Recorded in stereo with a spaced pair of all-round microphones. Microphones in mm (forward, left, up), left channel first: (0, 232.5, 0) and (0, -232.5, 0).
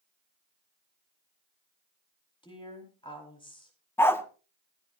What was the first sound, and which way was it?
A woman speaking, 10° left (ahead or behind).